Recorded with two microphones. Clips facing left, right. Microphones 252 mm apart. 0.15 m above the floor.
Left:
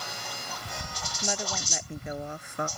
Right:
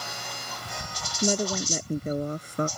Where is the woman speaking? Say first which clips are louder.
Right 9 dB; 50° right (ahead or behind); by 2.7 s 35° right (ahead or behind).